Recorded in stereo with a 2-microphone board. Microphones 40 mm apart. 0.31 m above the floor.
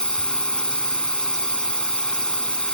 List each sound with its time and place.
0.0 s a drone: 25° left (ahead or behind)